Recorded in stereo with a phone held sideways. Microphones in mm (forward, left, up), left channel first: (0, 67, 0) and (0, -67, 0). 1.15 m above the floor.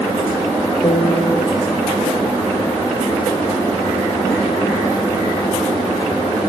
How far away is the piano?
About 0.9 m.